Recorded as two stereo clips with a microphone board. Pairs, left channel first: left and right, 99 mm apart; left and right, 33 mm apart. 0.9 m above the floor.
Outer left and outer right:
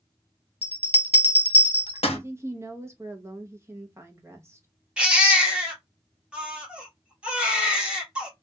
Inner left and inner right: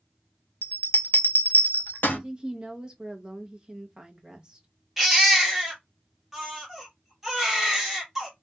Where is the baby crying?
10° right (ahead or behind), 1.0 m.